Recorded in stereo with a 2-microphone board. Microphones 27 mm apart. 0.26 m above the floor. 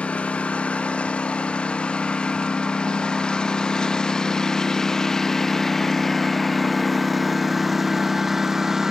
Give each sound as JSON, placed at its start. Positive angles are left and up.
{"t": 0.0, "sound": "a lawn mower", "side_deg": 55}